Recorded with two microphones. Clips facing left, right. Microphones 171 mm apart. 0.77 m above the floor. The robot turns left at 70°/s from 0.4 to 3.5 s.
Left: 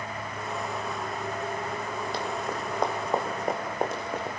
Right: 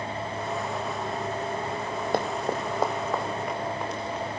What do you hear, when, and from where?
2.1 s running footsteps: 55° right (ahead or behind), 1.6 m; by 4.4 s 50° left (ahead or behind), 3.5 m